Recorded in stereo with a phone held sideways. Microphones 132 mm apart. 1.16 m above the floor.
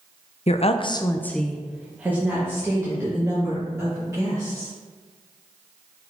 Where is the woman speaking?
55° left (ahead or behind), 0.6 m; by 4.7 s 25° right (ahead or behind), 3 m.